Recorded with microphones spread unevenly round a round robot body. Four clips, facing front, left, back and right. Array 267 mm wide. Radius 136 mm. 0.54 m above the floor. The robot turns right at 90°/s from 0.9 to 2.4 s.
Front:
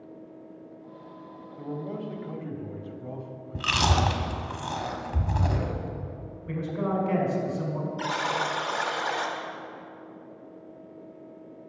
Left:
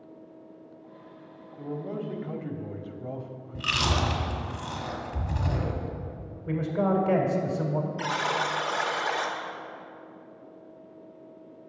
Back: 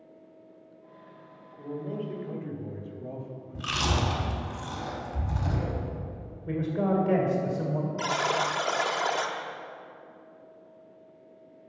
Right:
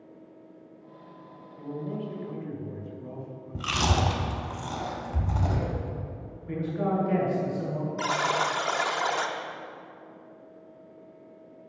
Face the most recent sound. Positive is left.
turn(degrees=-175)